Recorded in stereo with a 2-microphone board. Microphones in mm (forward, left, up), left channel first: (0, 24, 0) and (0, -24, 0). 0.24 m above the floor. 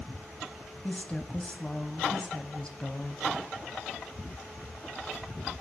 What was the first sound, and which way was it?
A woman speaking, 20° left (ahead or behind).